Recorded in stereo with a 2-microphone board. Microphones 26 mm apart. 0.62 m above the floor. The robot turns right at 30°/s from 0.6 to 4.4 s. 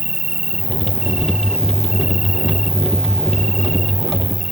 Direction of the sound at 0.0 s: 50° right.